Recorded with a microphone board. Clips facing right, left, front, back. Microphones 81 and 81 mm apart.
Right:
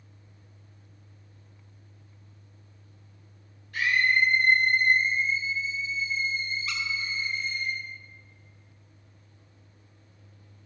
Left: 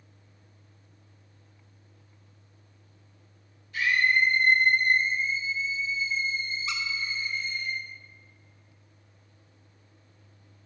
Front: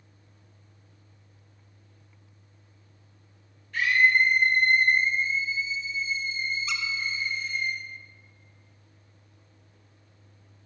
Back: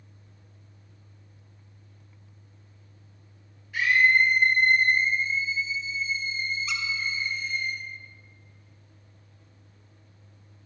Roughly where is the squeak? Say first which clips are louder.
Left 1 dB, even; left.